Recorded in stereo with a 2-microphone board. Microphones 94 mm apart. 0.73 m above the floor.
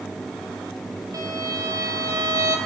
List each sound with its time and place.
1.1 s a violin: 40° right (ahead or behind), 3.5 m